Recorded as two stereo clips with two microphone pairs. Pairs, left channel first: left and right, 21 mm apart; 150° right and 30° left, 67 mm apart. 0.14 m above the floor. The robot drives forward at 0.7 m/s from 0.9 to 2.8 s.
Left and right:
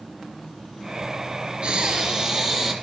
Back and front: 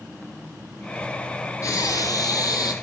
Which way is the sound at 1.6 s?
120° right.